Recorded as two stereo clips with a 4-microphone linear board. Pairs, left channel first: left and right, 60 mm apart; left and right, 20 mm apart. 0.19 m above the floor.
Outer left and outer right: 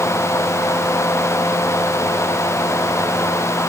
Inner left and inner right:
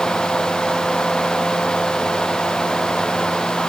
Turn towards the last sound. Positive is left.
No sound to turn to.